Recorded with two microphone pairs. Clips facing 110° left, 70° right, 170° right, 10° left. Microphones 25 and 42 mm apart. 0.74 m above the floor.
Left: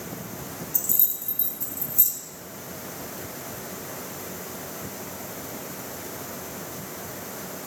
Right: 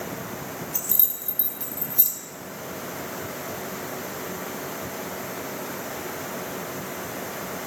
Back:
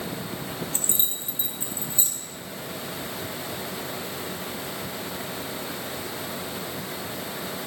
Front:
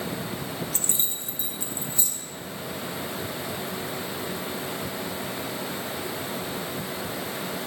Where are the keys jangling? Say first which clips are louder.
Right 1 dB, back 1 dB; 115° right, 0.7 m.